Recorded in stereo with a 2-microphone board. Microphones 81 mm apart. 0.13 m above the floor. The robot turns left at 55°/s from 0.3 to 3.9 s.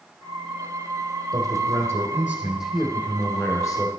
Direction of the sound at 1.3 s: 100° right.